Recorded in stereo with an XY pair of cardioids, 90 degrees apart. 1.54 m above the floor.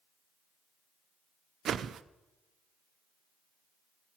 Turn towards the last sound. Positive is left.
turn(degrees=-70)